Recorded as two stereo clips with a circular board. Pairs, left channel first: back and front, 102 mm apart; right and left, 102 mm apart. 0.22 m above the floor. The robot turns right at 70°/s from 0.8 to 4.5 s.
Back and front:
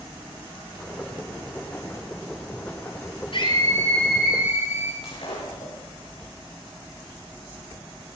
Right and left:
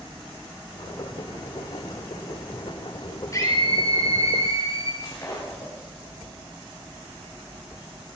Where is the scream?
150° right, 5 m; by 4.9 s 65° right, 5 m.